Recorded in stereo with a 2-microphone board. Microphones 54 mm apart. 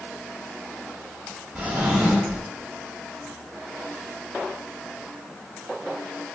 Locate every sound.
1.6 s a drawer: 25° right (ahead or behind), 0.7 m